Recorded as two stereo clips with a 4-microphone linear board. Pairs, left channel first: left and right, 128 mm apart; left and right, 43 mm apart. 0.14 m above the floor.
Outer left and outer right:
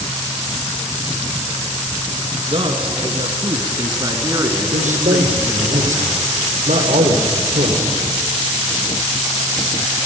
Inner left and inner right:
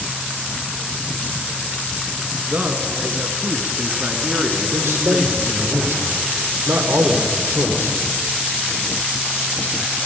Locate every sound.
2.5 s a man speaking: 45° right (ahead or behind), 2 m; by 5.7 s 10° right (ahead or behind), 1.9 m
4.7 s a man speaking: 70° right (ahead or behind), 4.5 m